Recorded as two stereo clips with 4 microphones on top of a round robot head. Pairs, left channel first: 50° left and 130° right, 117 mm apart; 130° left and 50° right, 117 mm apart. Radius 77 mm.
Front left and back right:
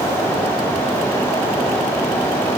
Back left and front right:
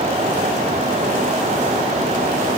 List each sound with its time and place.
Only background noise.